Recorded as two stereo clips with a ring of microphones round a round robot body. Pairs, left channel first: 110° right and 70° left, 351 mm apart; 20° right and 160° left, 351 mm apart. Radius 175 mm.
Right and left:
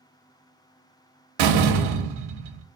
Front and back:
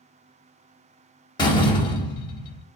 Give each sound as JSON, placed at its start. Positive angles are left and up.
{"t": 1.4, "sound": "a door slam", "azimuth_deg": 55, "distance_m": 1.0}